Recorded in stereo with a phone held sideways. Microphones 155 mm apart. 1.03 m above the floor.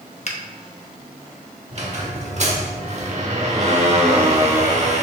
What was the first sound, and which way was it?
A finger snap, 45° left (ahead or behind).